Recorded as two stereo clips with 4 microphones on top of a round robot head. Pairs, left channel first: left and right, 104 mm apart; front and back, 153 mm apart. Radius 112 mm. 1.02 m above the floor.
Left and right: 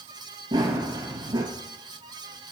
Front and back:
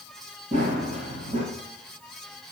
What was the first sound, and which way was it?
Running footsteps, 125° right.